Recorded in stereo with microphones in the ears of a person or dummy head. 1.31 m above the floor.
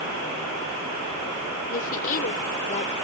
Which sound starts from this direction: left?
A woman speaking, at 1.7 s.